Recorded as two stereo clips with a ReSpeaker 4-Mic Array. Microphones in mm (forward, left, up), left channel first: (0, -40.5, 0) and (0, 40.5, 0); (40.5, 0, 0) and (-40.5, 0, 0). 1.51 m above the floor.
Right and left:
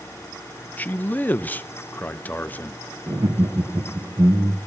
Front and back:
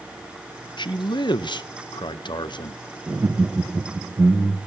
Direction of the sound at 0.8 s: 20° right.